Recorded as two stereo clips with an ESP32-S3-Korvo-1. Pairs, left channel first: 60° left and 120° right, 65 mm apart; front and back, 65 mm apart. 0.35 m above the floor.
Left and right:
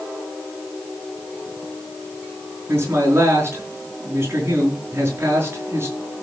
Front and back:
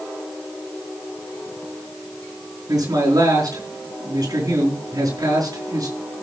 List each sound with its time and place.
2.7 s a man speaking: 170° right, 5 m